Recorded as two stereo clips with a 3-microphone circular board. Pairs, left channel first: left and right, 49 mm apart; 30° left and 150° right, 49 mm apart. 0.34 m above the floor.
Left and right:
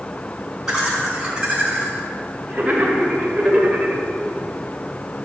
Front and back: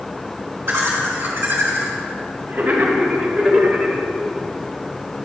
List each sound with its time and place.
0.7 s laughter: 175° right, 3.5 m; by 4.0 s 60° right, 1.6 m